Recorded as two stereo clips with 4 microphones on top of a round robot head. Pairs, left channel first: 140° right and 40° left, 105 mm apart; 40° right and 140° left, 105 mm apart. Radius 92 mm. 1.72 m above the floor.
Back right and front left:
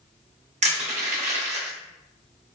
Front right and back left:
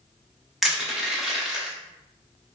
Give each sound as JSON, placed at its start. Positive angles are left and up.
{"t": 0.6, "sound": "crushing", "azimuth_deg": 55, "distance_m": 0.8}